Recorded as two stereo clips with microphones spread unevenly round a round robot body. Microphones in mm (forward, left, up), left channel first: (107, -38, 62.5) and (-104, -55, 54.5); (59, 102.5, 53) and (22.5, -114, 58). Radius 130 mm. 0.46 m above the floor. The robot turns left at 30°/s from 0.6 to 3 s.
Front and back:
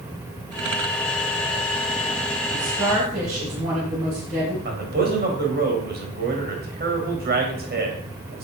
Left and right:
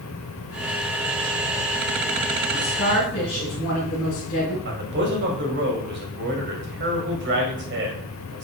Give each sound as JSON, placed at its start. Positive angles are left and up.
{"t": 2.5, "sound": "a woman speaking", "azimuth_deg": 145, "distance_m": 3.5}
{"t": 4.7, "sound": "a man speaking", "azimuth_deg": -135, "distance_m": 2.5}